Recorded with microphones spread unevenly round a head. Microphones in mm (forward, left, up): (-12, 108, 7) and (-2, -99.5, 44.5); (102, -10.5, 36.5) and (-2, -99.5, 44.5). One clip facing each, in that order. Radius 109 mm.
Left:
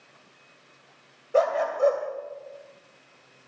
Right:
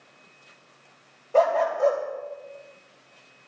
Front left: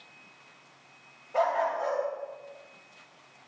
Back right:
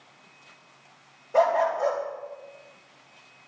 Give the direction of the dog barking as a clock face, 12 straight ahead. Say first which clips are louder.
Right 2 dB, back right 5 dB; 6 o'clock.